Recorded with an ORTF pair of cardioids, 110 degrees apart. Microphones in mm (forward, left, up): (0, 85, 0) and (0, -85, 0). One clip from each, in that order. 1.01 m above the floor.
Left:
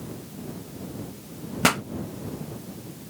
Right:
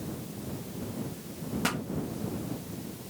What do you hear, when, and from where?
1.6 s a pop: 50° left